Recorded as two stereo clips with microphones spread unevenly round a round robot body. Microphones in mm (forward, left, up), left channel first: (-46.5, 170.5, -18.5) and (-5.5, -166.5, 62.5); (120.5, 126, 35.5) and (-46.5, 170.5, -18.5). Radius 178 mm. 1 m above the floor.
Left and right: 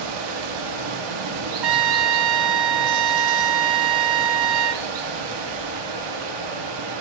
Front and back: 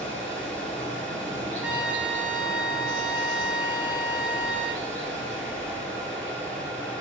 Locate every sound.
0.0 s running water: 100° right, 1.4 m
1.6 s a trumpet: 115° right, 1.1 m